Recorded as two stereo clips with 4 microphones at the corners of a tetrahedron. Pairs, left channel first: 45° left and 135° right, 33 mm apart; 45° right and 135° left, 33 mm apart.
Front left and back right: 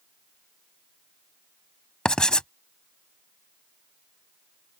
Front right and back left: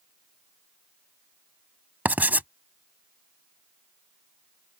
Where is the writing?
110° left.